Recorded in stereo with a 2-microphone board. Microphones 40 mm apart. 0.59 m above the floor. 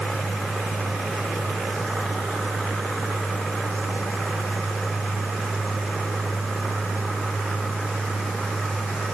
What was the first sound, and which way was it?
Only background noise.